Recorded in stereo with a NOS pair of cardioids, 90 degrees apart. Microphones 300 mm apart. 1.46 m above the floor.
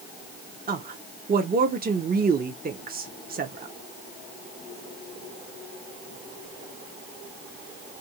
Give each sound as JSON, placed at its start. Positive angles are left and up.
{"t": 0.7, "sound": "a woman speaking", "azimuth_deg": -30, "distance_m": 0.7}